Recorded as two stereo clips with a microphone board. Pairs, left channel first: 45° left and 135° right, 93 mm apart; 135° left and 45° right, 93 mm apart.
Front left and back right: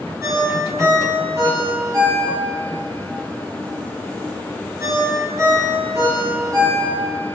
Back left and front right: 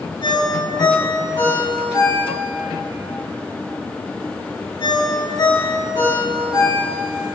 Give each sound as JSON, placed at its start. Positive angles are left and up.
{"t": 0.2, "sound": "a ringtone", "azimuth_deg": 170, "distance_m": 3.5}